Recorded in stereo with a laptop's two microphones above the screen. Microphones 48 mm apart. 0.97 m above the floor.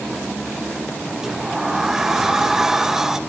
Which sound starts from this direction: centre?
A sliding door, at 1.2 s.